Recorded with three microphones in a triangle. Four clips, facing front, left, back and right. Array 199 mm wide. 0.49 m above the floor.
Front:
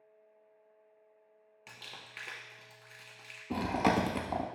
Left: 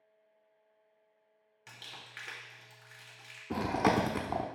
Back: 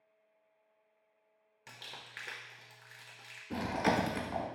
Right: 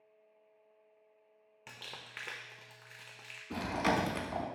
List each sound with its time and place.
1.7 s crumpling: 110° right, 0.9 m
3.5 s chewing: 45° left, 0.6 m